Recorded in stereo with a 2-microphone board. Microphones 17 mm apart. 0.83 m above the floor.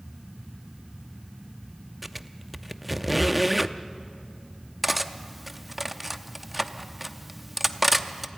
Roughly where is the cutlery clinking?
Centre.